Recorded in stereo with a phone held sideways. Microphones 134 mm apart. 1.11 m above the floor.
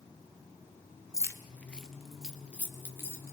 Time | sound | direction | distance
1.1 | keys jangling | 25° left (ahead or behind) | 1.0 m